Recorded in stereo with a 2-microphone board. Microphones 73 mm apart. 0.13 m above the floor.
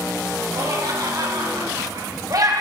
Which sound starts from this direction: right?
Laughter, at 0.5 s.